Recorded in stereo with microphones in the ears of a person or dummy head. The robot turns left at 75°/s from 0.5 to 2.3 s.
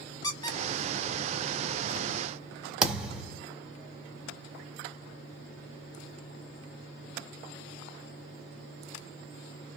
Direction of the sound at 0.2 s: 25° left (ahead or behind).